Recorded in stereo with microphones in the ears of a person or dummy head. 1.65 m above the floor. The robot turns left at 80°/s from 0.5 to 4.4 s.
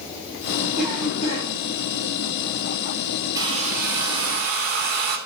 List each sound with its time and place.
0.8 s a cough: 175° right, 5.5 m; by 1.5 s 130° left, 5.5 m
3.4 s a hair dryer: 20° right, 3 m; by 5.2 s 105° right, 3 m